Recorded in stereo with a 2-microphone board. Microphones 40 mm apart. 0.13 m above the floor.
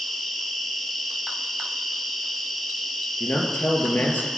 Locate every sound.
0.0 s an insect: 5° left (ahead or behind), 1.3 m
3.2 s a man speaking: 50° left (ahead or behind), 2.5 m